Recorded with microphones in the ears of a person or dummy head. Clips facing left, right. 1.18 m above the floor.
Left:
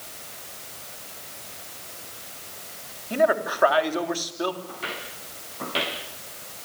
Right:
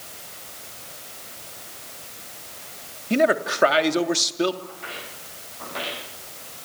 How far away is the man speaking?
About 2.5 m.